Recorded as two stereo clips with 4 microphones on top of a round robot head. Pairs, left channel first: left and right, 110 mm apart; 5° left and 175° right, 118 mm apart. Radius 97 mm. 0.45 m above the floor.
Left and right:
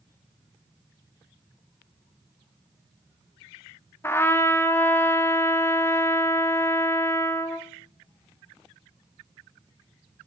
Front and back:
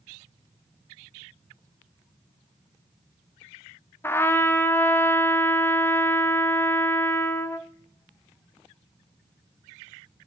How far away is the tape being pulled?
No tape being pulled in this recording.